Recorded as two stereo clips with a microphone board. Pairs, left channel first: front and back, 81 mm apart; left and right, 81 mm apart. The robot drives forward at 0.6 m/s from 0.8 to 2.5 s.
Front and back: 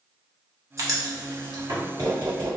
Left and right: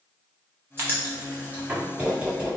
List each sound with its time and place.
0.8 s writing: 145° right, 0.9 m; by 2.6 s 165° right, 1.7 m